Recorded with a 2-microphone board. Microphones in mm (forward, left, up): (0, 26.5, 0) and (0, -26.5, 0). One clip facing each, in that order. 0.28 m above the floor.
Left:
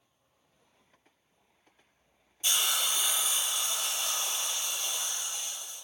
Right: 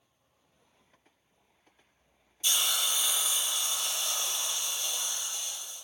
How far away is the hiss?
About 0.7 m.